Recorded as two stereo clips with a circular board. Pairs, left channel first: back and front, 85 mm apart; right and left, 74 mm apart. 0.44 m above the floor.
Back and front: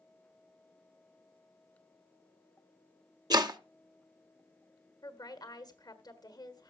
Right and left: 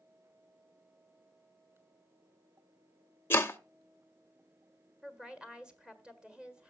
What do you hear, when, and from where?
3.3 s chopping: 35° right, 0.7 m
5.0 s a woman speaking: 165° left, 1.5 m